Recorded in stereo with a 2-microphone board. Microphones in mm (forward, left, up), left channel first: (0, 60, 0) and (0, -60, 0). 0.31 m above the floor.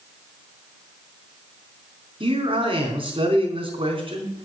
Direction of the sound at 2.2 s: 45° right (ahead or behind).